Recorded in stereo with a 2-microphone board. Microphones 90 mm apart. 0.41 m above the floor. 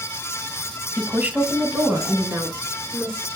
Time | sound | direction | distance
1.0 | a woman speaking | 15° right (ahead or behind) | 1.8 m